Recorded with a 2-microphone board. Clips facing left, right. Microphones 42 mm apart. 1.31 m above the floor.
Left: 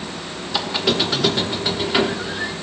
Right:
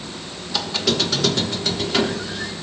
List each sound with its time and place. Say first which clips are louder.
0.5 s a squeak: left 2 dB; 20° left (ahead or behind), 1.0 m